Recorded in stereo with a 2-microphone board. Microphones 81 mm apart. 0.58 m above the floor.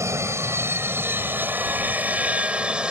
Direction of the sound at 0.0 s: 35° right (ahead or behind).